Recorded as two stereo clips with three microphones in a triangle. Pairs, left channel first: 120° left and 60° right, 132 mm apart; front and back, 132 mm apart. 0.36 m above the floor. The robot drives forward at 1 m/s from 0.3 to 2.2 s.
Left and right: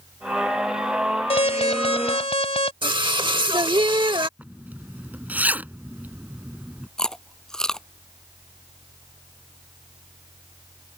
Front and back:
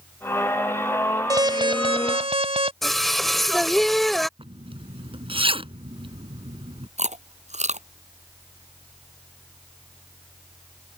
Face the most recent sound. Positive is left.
turn(degrees=-155)